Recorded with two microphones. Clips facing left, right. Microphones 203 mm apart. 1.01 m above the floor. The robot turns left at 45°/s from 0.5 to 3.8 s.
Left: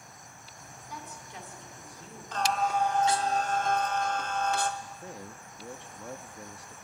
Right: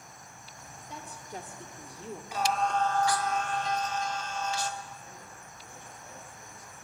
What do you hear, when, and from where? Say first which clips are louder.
0.9 s a woman speaking: right 3 dB; 25° right, 3 m; by 2.2 s 85° right, 3 m
2.3 s singing: even; 170° right, 1.3 m; by 4.7 s 125° left, 1.3 m
4.8 s a man speaking: left 5 dB; 75° left (ahead or behind), 1.6 m